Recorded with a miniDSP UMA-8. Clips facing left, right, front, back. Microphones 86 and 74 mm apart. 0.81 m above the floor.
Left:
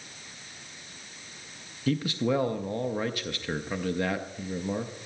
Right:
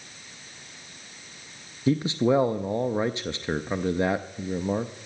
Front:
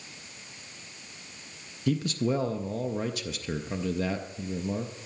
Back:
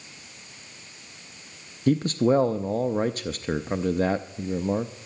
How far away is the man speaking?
About 0.5 m.